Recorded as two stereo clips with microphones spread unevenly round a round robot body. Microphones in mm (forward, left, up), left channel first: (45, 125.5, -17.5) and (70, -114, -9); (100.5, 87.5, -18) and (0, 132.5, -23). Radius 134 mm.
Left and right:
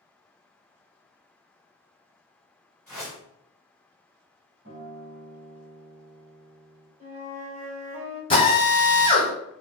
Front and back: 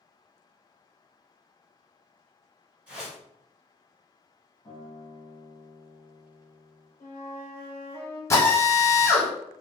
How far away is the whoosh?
About 1.7 m.